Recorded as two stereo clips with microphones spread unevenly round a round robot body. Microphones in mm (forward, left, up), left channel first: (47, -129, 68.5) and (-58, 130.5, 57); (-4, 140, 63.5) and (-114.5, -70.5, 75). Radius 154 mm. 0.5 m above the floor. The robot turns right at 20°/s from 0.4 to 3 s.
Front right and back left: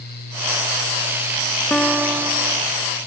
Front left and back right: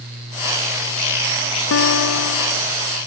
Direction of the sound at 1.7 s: 20° left.